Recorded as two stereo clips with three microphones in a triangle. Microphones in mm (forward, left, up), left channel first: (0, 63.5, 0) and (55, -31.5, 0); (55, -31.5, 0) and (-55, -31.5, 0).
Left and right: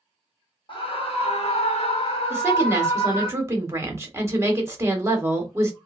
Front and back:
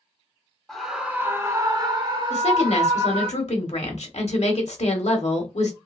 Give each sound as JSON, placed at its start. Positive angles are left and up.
{"t": 0.7, "sound": "a scream", "azimuth_deg": 85, "distance_m": 0.8}
{"t": 2.3, "sound": "a woman speaking", "azimuth_deg": 5, "distance_m": 1.2}